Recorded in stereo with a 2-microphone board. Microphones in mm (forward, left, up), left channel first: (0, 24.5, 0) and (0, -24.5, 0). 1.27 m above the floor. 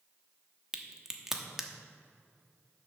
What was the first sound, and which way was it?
A crack, 15° right (ahead or behind).